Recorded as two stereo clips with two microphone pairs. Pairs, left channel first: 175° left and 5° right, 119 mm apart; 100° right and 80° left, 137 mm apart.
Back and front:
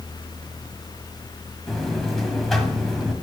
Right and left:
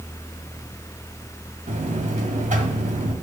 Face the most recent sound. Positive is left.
turn(degrees=85)